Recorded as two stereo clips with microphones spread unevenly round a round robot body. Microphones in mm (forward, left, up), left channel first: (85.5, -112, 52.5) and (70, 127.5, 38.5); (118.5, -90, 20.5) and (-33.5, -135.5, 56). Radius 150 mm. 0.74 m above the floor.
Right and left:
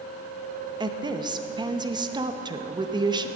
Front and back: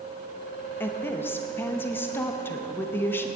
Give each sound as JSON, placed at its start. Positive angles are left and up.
{"t": 0.8, "sound": "a woman speaking", "azimuth_deg": 50, "distance_m": 0.9}